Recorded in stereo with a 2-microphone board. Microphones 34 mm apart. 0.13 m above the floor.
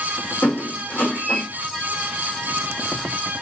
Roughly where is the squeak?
Left.